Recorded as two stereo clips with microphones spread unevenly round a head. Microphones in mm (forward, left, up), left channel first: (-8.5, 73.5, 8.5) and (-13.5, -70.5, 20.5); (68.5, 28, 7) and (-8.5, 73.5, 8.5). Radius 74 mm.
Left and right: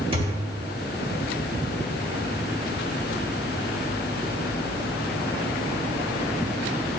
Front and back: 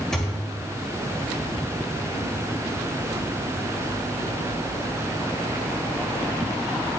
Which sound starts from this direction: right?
A thud, at 0.1 s.